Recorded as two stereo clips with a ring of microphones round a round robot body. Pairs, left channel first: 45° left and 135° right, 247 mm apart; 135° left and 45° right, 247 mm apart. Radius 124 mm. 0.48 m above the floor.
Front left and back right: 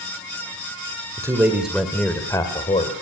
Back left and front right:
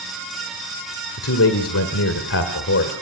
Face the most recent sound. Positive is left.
turn(degrees=105)